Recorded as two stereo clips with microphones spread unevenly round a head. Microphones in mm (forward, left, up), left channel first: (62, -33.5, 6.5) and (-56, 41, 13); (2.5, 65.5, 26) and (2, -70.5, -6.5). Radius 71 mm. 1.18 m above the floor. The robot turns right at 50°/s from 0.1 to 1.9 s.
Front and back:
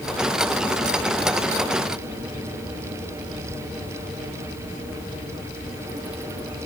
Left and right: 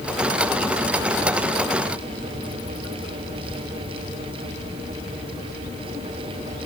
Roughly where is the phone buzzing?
No phone buzzing in this recording.